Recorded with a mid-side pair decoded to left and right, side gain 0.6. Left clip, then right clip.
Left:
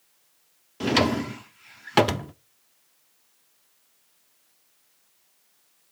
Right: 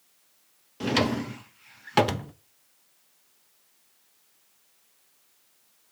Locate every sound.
0.8 s a drawer: 20° left, 0.5 m